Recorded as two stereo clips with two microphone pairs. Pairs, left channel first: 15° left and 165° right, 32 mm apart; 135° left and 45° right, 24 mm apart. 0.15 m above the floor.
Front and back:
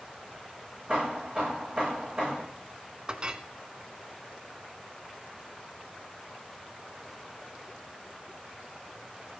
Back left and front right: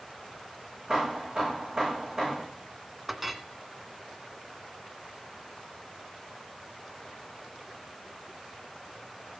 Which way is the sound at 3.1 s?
120° right.